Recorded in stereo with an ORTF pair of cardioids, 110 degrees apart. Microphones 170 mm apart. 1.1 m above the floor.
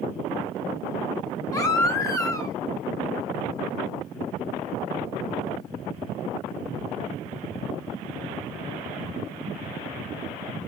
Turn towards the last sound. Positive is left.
turn(degrees=20)